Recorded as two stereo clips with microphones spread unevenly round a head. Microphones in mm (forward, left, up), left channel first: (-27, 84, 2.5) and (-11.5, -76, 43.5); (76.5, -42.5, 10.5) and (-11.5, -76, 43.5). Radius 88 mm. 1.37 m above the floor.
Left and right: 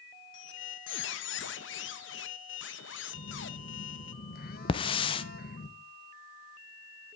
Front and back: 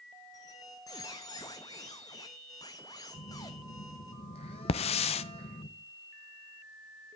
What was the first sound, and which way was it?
A squeak, 100° left.